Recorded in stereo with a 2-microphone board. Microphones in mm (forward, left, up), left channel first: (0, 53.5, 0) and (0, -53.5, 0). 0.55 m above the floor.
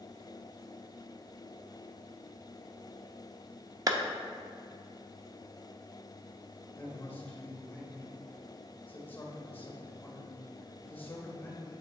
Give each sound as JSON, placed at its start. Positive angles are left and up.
{"t": 3.9, "sound": "a clap", "side_deg": -35, "distance_m": 0.6}
{"t": 6.8, "sound": "a man speaking", "side_deg": 20, "distance_m": 1.7}